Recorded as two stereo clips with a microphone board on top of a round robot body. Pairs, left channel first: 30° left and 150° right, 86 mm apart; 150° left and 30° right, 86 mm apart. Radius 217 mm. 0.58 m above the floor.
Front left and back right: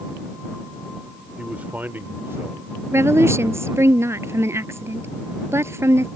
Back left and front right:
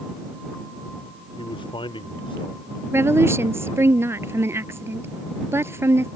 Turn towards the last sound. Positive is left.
turn(degrees=-90)